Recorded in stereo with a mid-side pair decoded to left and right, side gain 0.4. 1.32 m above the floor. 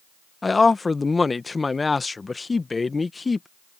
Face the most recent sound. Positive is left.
turn(degrees=25)